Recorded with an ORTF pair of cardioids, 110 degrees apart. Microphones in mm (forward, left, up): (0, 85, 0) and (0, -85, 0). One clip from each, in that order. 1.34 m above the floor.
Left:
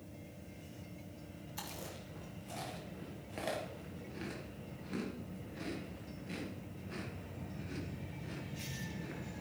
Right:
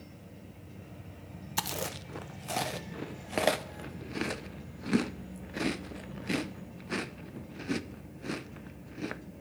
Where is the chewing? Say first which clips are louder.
Right 12 dB; 65° right, 0.6 m.